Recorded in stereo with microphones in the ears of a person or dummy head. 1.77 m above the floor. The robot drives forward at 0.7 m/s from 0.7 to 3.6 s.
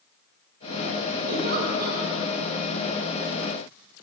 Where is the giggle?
55° right (ahead or behind), 2 m; by 2.0 s 65° right (ahead or behind), 1.8 m.